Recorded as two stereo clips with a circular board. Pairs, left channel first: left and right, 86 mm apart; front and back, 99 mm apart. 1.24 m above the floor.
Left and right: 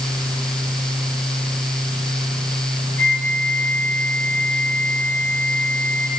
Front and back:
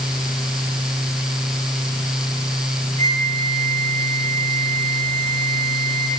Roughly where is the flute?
Behind.